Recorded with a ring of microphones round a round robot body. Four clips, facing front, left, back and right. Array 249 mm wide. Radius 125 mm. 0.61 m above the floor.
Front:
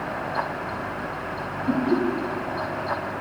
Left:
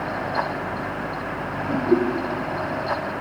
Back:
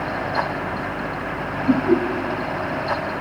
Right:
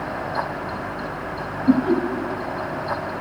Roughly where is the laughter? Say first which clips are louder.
Right 3 dB, back 5 dB; right.